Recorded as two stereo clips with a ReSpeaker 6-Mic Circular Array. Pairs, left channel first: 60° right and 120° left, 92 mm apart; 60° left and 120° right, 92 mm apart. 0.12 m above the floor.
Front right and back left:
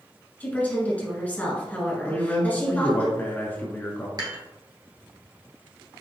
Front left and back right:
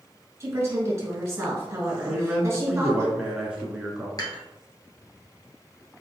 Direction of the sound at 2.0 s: 65° right.